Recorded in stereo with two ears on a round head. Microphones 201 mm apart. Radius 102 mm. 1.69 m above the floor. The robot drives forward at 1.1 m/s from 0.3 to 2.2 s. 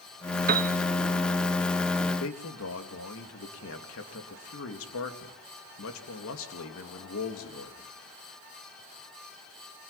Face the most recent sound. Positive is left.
turn(degrees=65)  # may be behind; listen again after turning